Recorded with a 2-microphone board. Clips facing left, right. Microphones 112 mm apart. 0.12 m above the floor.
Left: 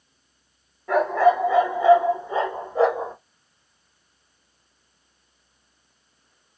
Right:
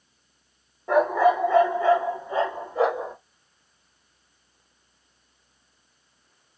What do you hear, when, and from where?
0.9 s a dog barking: 20° right (ahead or behind), 0.9 m; by 3.1 s 35° left (ahead or behind), 2.0 m